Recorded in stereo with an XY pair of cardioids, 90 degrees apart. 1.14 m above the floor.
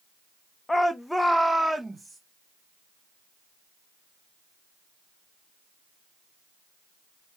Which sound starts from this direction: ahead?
A shout, at 0.7 s.